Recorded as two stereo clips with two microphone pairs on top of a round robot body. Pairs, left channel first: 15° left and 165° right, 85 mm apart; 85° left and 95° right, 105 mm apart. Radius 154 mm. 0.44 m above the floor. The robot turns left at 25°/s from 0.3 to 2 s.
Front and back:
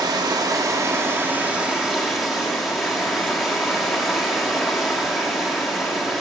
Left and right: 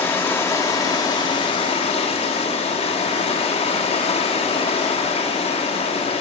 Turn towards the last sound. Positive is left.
turn(degrees=105)